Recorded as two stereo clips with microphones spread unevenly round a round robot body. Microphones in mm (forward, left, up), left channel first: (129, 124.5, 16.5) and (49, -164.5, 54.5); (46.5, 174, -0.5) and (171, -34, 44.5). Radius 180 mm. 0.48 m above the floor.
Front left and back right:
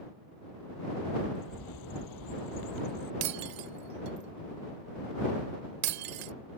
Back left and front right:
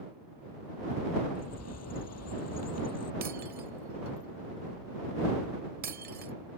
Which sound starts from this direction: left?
A bird, at 1.4 s.